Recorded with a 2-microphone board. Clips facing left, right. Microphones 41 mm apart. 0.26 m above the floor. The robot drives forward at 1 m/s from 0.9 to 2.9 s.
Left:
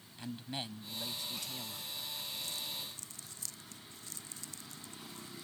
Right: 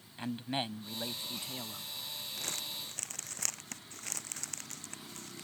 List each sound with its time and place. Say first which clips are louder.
0.2 s a man speaking: right 6 dB; 35° right (ahead or behind); by 1.9 s 25° right (ahead or behind)
2.4 s crumpling: right 1 dB; 55° right (ahead or behind)